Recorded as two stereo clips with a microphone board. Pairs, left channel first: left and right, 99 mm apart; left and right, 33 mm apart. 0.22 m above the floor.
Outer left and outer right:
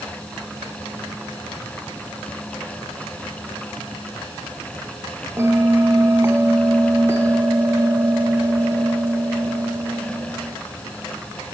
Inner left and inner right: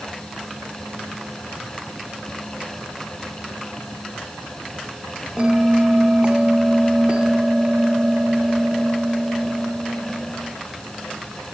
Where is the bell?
30° right (ahead or behind), 1.0 m.